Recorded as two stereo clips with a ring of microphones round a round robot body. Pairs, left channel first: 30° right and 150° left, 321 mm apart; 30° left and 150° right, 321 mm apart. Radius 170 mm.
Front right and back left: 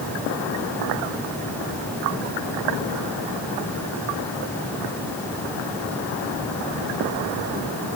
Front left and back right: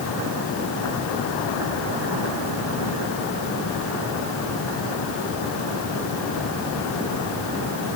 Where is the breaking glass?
No breaking glass in this recording.